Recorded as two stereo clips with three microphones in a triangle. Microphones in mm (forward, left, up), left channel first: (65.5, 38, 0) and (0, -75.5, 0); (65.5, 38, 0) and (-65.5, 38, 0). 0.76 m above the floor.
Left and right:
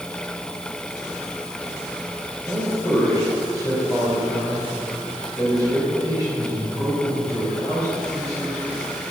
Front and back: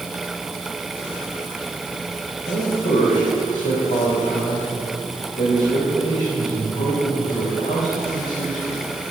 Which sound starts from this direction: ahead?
A man speaking, at 2.5 s.